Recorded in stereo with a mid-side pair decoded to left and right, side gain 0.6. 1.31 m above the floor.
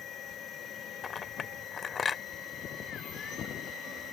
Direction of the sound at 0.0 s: 50° left.